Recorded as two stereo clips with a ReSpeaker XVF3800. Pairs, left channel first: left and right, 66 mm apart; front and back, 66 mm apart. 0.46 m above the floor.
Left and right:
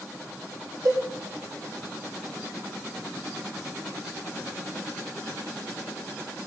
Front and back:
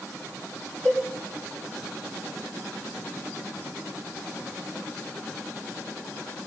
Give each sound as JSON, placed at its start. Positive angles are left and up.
{"t": 0.8, "sound": "a cowbell", "azimuth_deg": -65, "distance_m": 4.0}